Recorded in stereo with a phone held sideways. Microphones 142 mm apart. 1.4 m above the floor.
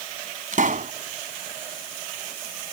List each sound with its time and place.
0.5 s a pop: 65° right (ahead or behind)